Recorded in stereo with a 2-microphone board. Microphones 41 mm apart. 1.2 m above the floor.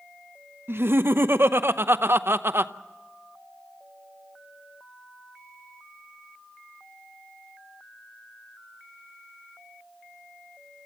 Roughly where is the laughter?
Right.